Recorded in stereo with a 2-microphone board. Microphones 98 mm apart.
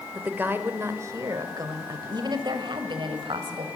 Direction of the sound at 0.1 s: 15° right (ahead or behind).